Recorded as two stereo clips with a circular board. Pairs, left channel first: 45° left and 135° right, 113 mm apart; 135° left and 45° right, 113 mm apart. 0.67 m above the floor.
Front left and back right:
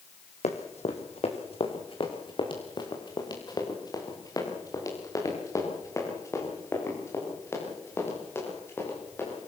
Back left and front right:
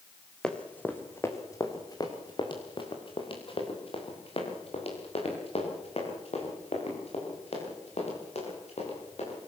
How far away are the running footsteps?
About 3 m.